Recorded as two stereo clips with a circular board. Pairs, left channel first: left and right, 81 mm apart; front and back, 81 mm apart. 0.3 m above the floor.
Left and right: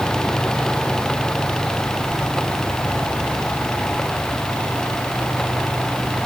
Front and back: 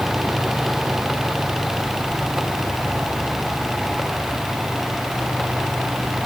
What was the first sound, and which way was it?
Only background noise.